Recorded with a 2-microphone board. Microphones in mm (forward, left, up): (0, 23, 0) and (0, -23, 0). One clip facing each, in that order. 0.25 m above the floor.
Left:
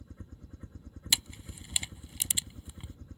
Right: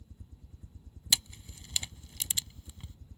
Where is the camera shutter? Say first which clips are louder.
Even; 15° left (ahead or behind).